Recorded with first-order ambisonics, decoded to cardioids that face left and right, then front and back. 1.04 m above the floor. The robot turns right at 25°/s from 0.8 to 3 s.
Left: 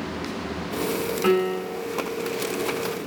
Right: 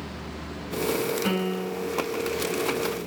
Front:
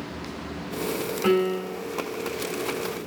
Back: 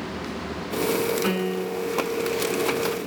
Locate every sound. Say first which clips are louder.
1.2 s a piano: left 6 dB, front 3 dB; 75° left, 1.9 m; by 1.9 s 90° left, 1.9 m